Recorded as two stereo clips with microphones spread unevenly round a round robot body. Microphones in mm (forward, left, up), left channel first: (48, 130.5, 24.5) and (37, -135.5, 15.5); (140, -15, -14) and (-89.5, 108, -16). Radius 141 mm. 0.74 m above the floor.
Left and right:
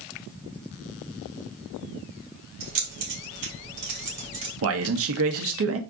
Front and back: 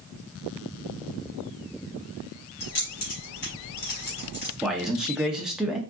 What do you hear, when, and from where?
2.6 s keys jangling: 85° right, 3.5 m
4.6 s a man speaking: 120° right, 0.7 m